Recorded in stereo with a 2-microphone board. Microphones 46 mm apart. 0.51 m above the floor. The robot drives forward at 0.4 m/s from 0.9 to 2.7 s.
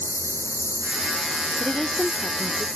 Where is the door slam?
No door slam in this recording.